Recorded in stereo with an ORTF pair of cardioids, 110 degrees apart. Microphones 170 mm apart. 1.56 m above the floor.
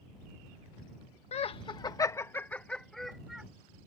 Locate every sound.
1.3 s laughter: 40° left; by 3.5 s 5° right